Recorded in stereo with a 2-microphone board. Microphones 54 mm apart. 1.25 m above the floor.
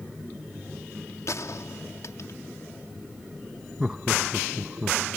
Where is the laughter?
15° right (ahead or behind).